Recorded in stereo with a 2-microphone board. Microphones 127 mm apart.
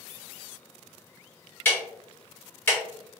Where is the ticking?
15° left (ahead or behind), 1.2 m.